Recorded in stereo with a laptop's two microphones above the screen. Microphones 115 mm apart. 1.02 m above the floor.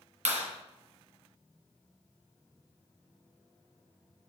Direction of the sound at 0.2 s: 85° right.